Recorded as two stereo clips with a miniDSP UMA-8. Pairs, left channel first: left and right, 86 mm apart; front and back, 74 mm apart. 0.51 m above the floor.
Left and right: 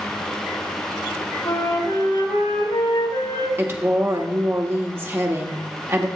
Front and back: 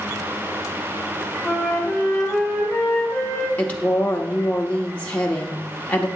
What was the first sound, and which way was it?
A flute, 80° left.